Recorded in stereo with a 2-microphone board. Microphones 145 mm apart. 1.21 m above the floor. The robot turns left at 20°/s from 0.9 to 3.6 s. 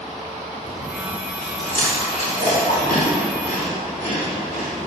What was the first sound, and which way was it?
Chewing, 50° left (ahead or behind).